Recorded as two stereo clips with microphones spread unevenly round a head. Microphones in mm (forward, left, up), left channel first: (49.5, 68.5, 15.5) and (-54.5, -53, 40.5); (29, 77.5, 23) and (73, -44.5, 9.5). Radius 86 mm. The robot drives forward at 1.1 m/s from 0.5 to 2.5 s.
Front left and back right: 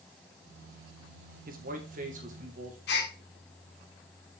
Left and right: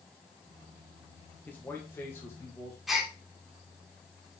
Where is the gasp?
20° left, 2.5 m.